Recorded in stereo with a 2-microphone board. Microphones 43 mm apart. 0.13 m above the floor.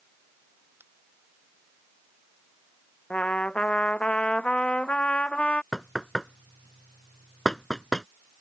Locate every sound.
0.8 s a finger snap: 65° right (ahead or behind)
3.1 s a trumpet: 25° left (ahead or behind)
5.7 s knocking: 10° left (ahead or behind)